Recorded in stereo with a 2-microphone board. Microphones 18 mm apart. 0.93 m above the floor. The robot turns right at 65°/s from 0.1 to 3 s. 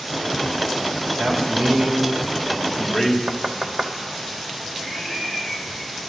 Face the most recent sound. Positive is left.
turn(degrees=-30)  # may be behind; listen again after turning